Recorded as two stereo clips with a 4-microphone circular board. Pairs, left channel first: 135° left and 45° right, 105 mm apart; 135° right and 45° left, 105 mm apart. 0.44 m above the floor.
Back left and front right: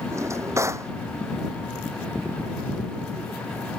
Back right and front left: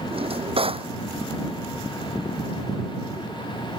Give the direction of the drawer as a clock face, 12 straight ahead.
11 o'clock.